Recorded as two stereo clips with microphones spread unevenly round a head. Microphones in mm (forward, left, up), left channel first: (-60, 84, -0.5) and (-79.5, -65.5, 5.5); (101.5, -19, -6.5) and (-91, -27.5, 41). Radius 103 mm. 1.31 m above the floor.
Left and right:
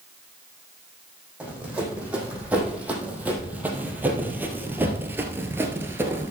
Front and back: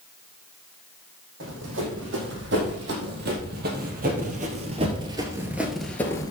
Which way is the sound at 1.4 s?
Straight behind.